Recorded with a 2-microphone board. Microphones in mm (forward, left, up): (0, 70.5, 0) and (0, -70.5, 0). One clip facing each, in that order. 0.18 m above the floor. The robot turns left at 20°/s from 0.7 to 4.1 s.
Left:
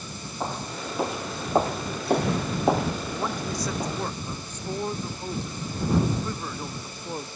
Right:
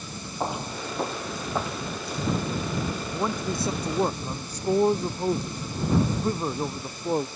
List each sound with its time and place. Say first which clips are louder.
0.4 s footsteps: right 2 dB; 15° right (ahead or behind); by 3.9 s 55° left (ahead or behind)
3.1 s a man speaking: right 2 dB; 15° right (ahead or behind); by 7.3 s 35° right (ahead or behind)